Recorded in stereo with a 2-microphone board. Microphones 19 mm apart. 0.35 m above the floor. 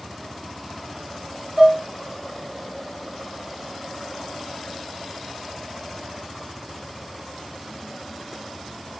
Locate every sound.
1.6 s dishes clattering: 5° left (ahead or behind), 1.3 m